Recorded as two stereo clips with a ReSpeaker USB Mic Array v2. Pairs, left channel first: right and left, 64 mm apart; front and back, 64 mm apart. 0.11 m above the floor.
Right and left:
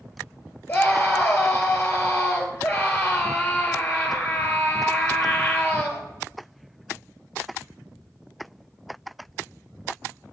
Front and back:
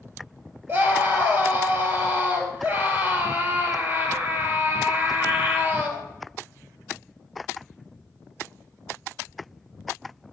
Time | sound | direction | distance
0.7 | a scream | 150° right | 2.5 m